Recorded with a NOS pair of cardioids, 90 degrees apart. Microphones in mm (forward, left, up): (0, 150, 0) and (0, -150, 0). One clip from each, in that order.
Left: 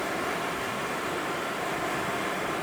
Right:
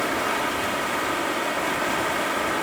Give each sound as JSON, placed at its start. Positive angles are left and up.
{"t": 0.0, "sound": "running water", "azimuth_deg": -55, "distance_m": 2.0}